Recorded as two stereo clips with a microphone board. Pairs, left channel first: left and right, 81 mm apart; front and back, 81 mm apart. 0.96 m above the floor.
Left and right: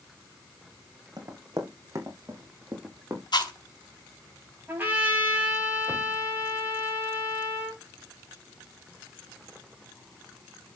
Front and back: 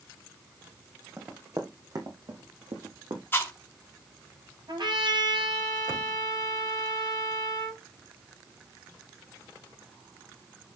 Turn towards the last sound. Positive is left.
turn(degrees=-155)